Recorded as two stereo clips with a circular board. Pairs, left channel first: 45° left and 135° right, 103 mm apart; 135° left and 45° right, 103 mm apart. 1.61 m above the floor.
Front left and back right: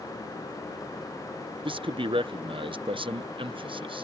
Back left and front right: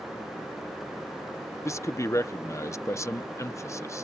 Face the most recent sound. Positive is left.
turn(degrees=-165)